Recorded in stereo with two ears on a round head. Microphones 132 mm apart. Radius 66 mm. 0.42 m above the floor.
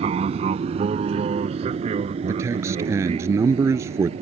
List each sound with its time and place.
0.0 s an aircraft: 40° right (ahead or behind)
2.3 s a man speaking: 20° right (ahead or behind)